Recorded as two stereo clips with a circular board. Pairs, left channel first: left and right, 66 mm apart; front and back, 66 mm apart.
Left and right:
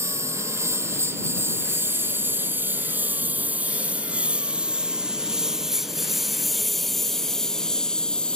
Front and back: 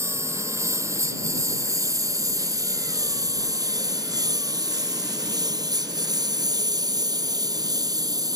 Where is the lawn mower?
135° right; by 8.4 s 165° left.